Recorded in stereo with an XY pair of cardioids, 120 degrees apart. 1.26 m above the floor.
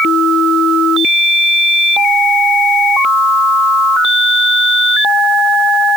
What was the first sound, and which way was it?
Only background noise.